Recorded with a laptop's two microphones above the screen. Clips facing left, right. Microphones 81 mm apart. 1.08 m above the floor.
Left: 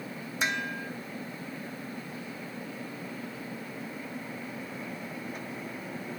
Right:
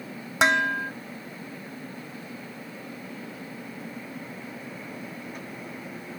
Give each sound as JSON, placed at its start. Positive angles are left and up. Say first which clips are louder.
{"t": 0.4, "sound": "dishes clattering", "louder": "right 10 dB", "side_deg": -75}